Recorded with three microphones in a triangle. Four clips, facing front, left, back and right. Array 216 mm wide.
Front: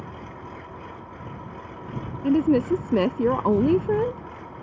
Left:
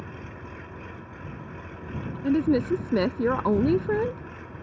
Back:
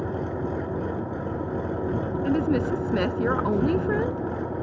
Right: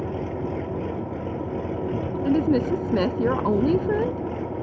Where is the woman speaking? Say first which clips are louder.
Right 1 dB, front 5 dB; 10° right.